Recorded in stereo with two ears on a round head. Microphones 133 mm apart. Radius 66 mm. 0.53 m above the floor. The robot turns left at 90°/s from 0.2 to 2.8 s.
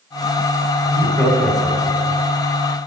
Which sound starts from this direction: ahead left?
Laughter, at 0.8 s.